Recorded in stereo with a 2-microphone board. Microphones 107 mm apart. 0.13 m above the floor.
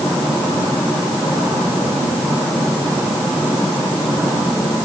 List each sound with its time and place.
Only background noise.